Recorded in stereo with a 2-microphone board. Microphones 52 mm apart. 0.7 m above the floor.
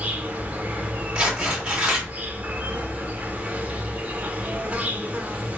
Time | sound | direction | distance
0.0 | an insect | 30° right (ahead or behind) | 0.9 m
1.1 | tearing paper | 20° right (ahead or behind) | 2.5 m